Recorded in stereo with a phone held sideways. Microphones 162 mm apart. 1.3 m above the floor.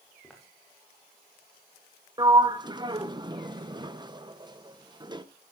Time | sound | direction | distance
0.2 | footsteps | centre (ahead or behind) | 5.5 m
2.2 | a sliding door | 25° right (ahead or behind) | 0.7 m